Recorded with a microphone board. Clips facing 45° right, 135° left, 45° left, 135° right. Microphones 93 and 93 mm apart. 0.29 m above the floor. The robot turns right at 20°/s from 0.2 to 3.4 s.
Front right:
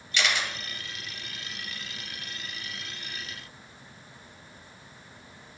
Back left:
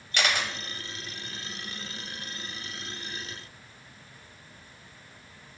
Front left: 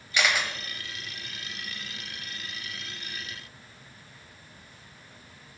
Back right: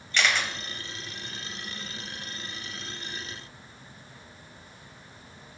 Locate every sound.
0.1 s a camera shutter: 120° left, 0.6 m; by 0.5 s 130° left, 0.6 m